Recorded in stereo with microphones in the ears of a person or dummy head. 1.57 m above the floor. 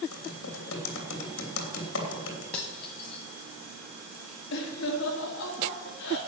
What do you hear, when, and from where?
0.1 s typing on a keyboard: 90° left, 3 m
2.5 s cutlery clinking: 10° left (ahead or behind), 0.8 m
4.5 s laughter: 75° left (ahead or behind), 3 m